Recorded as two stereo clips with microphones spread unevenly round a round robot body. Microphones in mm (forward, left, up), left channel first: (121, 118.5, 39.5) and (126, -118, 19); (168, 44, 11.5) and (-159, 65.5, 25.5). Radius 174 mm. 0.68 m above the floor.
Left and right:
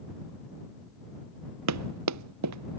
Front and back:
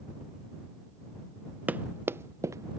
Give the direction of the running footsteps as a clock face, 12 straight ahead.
3 o'clock.